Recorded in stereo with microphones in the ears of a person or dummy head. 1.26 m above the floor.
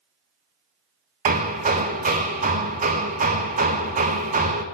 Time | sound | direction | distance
1.2 | hammering | 30° right (ahead or behind) | 0.7 m